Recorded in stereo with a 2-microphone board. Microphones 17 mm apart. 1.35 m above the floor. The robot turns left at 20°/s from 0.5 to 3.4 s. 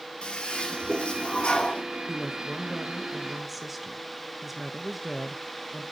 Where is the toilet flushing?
65° left (ahead or behind), 4.5 m; by 1.8 s 85° left, 4.5 m.